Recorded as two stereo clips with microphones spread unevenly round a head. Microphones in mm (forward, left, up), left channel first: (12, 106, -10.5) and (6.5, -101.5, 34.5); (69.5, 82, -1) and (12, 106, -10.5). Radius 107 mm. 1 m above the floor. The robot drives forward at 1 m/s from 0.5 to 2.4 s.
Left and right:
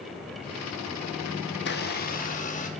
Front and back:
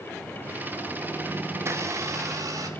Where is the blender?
115° left, 1.4 m; by 2.7 s 140° left, 1.9 m.